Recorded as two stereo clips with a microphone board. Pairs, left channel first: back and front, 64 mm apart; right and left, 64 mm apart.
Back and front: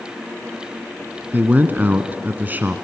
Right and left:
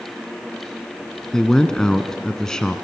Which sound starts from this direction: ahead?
A man speaking, at 1.3 s.